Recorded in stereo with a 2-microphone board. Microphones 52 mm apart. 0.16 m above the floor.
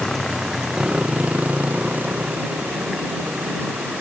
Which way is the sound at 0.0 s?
10° left (ahead or behind).